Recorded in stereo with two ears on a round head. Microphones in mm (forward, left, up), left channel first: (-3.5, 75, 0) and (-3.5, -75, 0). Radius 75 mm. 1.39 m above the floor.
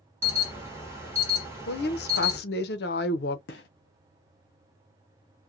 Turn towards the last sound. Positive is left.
turn(degrees=70)  # may be behind; listen again after turning